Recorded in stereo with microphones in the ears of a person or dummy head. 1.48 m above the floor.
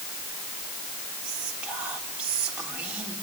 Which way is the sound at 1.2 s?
5° right (ahead or behind).